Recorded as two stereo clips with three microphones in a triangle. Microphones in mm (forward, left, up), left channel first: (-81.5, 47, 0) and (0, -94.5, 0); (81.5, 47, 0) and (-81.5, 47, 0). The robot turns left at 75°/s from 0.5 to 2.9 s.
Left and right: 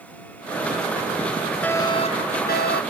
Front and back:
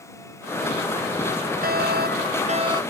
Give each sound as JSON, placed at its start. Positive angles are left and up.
{"t": 1.6, "sound": "a fire alarm", "azimuth_deg": -160}